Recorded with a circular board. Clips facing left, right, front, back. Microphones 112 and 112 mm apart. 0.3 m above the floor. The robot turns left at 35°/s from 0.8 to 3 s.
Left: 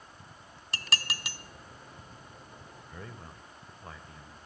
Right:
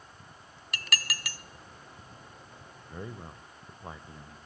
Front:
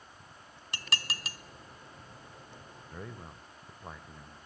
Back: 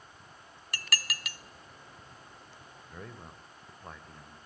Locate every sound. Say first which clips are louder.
0.7 s dishes clattering: even, back 1 dB; 55° left, 0.7 m; by 1.4 s 30° left, 0.7 m
2.9 s a man speaking: right 6 dB, front 1 dB; 75° right, 0.9 m; by 4.4 s 80° right, 0.9 m